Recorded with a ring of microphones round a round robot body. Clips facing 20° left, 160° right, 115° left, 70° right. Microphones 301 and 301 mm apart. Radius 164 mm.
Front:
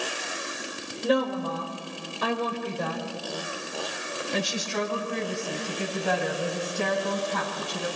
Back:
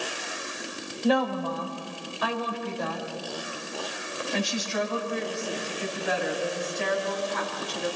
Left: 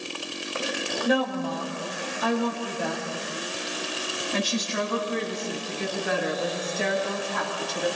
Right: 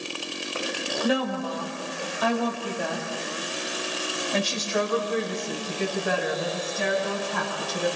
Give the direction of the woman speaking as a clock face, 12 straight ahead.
2 o'clock.